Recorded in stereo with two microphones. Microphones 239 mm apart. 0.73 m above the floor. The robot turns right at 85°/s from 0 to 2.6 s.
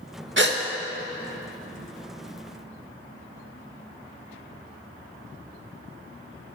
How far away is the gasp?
About 0.8 m.